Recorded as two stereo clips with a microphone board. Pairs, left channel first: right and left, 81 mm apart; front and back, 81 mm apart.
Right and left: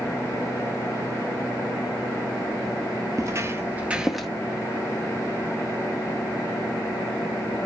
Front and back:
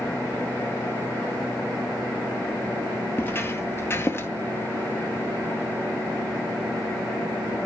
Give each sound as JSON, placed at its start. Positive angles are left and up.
{"t": 3.2, "sound": "footsteps", "azimuth_deg": 55, "distance_m": 0.9}